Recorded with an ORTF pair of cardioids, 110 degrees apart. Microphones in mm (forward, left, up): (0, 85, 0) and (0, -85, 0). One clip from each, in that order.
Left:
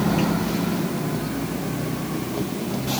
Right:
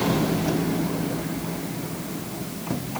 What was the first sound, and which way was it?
Only background noise.